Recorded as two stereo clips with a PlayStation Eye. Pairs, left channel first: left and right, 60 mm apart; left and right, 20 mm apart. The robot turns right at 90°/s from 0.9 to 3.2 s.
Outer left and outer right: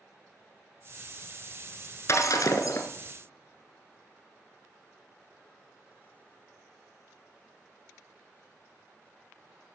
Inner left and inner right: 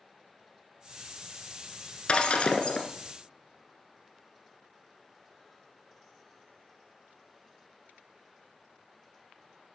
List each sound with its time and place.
2.1 s breaking glass: 55° left, 1.1 m; by 2.9 s 125° left, 1.1 m